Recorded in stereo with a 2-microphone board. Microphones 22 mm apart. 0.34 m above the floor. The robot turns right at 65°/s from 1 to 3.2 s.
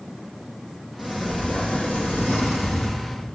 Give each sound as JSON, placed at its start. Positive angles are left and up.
{"t": 1.0, "sound": "a sliding door", "azimuth_deg": 0, "distance_m": 4.5}